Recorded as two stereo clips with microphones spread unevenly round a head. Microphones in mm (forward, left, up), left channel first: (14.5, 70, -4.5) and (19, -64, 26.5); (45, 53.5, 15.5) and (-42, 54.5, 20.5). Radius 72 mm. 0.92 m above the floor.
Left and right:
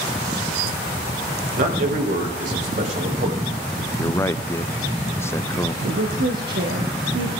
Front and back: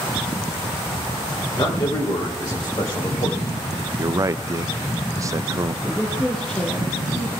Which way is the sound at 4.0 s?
140° left.